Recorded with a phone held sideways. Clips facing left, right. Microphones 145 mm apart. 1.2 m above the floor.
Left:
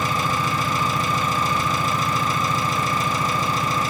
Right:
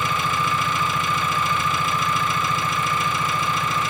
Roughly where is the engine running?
Left.